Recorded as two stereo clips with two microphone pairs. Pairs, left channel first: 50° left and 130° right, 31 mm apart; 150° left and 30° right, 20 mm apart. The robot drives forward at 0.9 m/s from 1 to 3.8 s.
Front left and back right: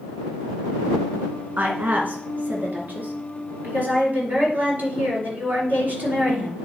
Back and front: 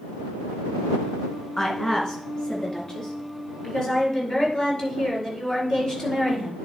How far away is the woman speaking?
About 2.5 m.